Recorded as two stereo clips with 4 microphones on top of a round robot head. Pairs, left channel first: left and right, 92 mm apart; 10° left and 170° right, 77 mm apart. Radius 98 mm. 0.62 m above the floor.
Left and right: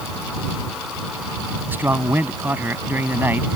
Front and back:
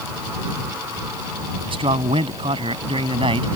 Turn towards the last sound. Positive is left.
turn(degrees=-165)